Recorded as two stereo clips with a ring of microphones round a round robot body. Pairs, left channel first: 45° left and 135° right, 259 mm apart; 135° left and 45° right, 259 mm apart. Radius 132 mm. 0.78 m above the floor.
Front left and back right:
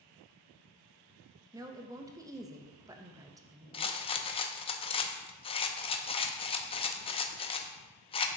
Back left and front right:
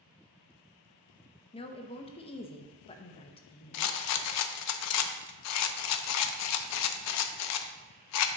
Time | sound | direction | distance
1.5 | a woman speaking | 165° left | 0.7 m
3.7 | a rattle | 115° left | 0.5 m